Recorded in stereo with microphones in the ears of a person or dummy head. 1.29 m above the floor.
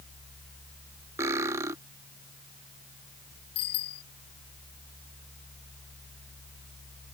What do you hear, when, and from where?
1.2 s cutlery clinking: 15° right (ahead or behind)
3.5 s a bicycle bell: 25° left (ahead or behind)